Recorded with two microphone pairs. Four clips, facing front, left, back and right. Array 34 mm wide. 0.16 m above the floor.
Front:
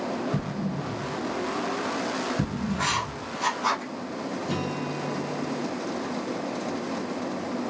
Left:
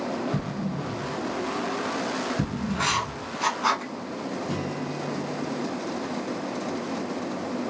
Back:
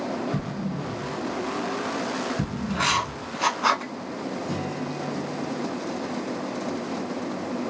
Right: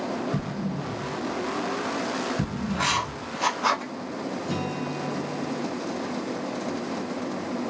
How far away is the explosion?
About 1.2 m.